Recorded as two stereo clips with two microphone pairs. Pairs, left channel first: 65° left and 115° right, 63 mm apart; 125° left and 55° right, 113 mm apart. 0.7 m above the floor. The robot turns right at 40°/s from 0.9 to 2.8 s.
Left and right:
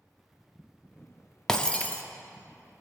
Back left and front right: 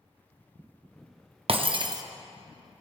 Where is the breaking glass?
25° right, 0.5 m; by 2.0 s 5° right, 0.5 m.